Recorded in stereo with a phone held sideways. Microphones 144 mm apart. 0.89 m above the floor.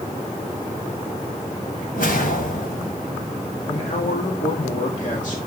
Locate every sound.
1.9 s a whoosh: 80° left, 3 m
3.6 s a man speaking: 60° left (ahead or behind), 1.8 m